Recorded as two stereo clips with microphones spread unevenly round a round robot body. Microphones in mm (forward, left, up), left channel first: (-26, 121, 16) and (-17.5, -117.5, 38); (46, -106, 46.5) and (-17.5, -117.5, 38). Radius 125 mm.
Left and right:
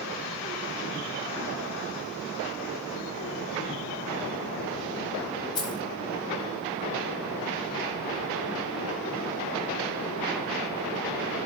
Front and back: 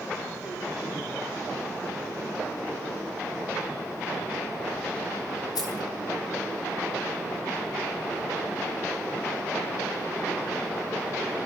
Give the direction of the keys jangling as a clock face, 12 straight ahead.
11 o'clock.